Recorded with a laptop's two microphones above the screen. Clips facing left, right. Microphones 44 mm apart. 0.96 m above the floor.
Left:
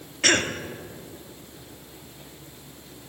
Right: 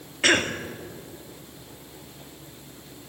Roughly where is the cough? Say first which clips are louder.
Right 1 dB; centre.